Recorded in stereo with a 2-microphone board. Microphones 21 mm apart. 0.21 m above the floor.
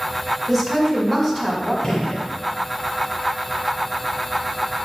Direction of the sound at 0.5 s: 5° left (ahead or behind).